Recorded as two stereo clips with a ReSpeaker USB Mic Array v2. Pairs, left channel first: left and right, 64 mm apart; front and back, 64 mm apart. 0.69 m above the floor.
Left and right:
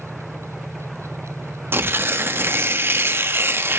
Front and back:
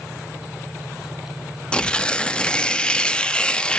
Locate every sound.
1.7 s tearing paper: 65° right, 0.9 m